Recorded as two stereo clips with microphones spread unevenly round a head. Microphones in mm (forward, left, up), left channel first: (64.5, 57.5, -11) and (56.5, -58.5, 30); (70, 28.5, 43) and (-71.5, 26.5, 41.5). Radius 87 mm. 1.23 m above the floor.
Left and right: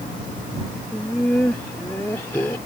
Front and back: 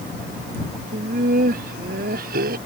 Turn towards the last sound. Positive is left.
turn(degrees=165)